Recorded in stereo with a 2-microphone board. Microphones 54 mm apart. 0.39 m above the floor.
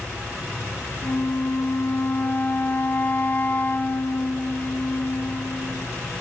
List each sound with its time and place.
1.0 s a flute: 40° left (ahead or behind), 2.0 m